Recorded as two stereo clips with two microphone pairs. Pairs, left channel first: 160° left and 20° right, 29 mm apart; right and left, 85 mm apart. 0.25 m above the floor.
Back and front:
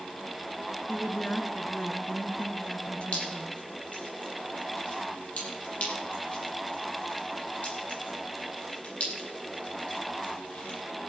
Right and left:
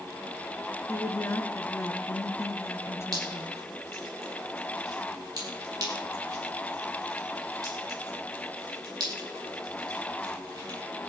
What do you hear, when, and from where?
0.9 s a woman speaking: 145° right, 2.5 m
3.1 s dripping: 130° left, 7.5 m